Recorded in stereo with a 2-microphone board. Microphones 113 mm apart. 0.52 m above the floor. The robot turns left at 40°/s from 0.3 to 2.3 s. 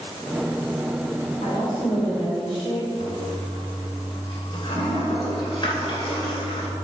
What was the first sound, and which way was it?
A woman speaking, 100° left.